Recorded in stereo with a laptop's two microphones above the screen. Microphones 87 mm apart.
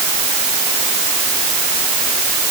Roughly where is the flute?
I don't hear a flute.